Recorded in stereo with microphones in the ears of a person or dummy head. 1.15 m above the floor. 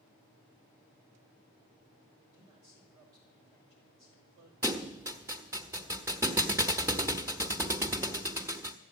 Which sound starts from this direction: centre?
A thud, at 4.6 s.